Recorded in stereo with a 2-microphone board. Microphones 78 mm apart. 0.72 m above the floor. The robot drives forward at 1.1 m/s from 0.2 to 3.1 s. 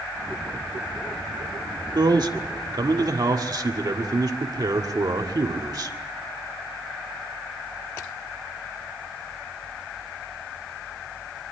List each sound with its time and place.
1.9 s a man speaking: 55° right (ahead or behind), 1.7 m